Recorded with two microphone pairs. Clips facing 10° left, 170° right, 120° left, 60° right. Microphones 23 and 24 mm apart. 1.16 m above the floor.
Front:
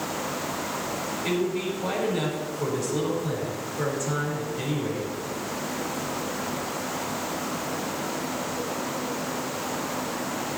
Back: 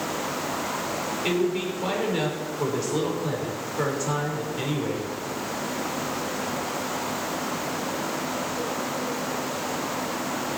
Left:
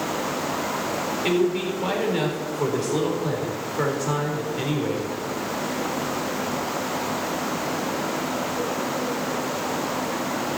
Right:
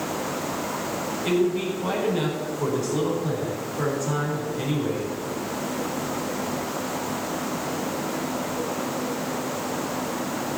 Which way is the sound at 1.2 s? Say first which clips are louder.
Back 2 dB, even; 135° left.